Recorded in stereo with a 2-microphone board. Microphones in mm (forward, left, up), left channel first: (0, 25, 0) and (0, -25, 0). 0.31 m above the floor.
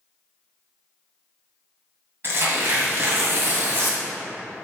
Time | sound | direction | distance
2.2 | tearing paper | 50° right (ahead or behind) | 1.7 m